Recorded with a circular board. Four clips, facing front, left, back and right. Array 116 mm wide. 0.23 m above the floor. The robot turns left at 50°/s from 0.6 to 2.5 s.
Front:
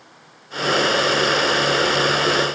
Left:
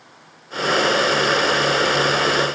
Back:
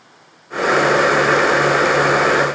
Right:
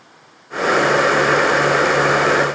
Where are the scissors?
No scissors in this recording.